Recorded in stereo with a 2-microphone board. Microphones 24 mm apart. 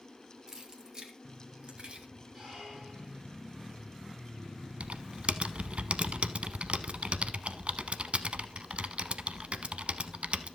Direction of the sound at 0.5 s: 30° right (ahead or behind).